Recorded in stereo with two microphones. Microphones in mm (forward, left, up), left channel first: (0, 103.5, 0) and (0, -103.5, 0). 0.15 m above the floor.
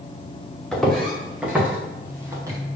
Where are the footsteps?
Centre (ahead or behind), 3.5 m; by 2.6 s 15° right (ahead or behind), 3 m.